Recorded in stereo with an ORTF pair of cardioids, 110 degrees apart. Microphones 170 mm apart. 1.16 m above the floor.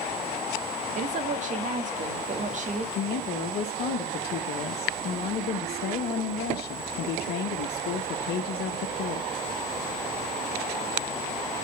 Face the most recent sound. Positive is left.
turn(degrees=70)